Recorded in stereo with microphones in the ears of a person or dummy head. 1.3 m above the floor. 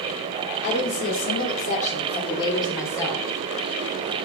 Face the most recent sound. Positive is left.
turn(degrees=10)  # may be behind; listen again after turning